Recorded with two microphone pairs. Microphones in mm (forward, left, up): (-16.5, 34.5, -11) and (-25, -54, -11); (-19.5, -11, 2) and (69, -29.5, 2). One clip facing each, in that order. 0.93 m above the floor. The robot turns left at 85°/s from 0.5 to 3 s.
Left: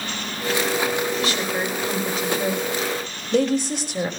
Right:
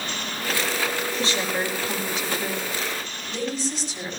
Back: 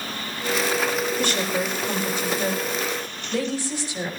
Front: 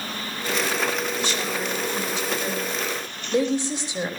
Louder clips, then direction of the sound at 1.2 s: Left 2 dB, back 3 dB; 150° right.